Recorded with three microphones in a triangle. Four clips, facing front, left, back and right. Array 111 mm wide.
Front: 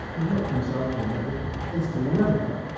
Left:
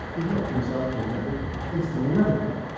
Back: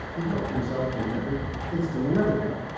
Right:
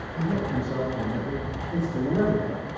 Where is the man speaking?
120° left, 4 m; by 2.7 s straight behind, 2.5 m.